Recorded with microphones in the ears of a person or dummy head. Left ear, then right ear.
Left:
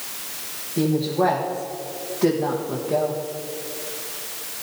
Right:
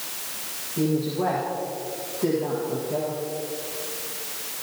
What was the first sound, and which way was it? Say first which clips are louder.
A woman speaking: left 4 dB; 40° left (ahead or behind).